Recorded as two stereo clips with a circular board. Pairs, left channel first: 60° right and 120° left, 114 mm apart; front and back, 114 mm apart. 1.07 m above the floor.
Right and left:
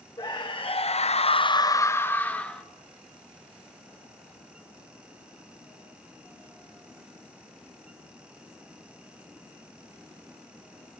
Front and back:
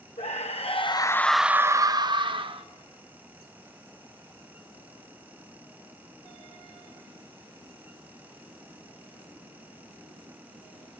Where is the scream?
10° right, 1.0 m; by 2.6 s 140° right, 1.4 m.